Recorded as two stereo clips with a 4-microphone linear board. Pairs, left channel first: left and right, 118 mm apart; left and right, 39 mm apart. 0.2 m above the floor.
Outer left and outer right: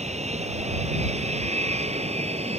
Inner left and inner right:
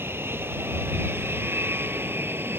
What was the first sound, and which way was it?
An aircraft, 70° right (ahead or behind).